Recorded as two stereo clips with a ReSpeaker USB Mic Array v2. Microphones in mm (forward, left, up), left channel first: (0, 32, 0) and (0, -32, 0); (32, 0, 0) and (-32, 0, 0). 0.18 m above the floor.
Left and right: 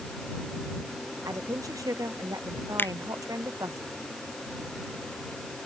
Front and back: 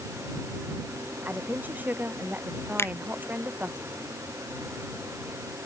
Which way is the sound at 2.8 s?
40° left.